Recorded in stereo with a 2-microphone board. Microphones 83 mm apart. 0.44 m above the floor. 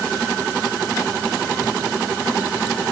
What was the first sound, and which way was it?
Only background noise.